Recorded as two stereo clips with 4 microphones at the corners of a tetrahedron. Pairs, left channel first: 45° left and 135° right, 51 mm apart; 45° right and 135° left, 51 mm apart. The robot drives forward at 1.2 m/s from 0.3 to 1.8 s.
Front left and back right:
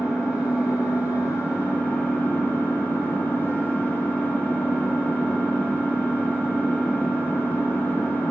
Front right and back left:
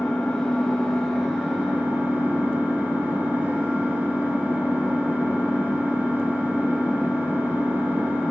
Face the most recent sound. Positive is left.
turn(degrees=90)